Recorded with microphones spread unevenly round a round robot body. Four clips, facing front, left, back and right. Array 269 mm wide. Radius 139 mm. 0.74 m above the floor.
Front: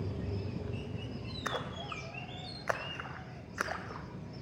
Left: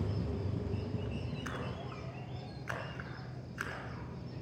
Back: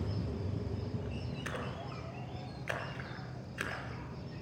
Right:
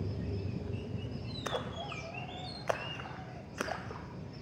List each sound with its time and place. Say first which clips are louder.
1.4 s a splash: right 4 dB, front 6 dB; 75° right, 1.1 m